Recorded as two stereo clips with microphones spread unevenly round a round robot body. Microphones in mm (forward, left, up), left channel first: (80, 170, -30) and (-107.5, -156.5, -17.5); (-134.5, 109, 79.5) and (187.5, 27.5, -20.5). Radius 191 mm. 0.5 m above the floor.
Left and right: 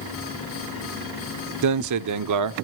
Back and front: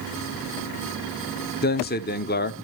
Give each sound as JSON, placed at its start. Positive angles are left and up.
{"t": 1.6, "sound": "a man speaking", "azimuth_deg": -125, "distance_m": 0.8}